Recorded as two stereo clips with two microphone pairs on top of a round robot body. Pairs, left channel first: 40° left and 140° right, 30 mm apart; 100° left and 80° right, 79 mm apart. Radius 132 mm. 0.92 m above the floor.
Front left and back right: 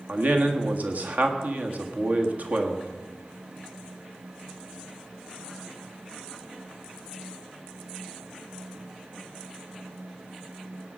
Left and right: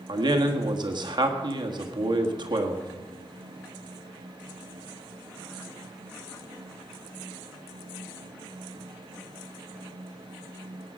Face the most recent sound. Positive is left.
turn(degrees=-110)